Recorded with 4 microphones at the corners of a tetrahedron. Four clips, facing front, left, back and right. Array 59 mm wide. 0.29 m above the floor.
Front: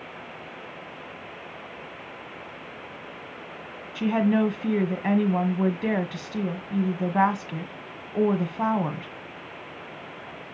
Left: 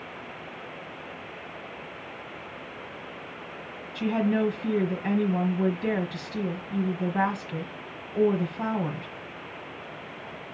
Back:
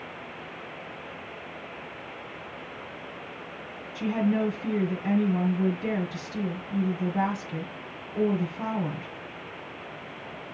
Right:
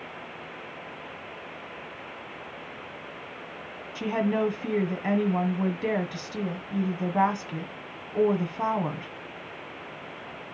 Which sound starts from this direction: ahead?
A woman speaking, at 4.0 s.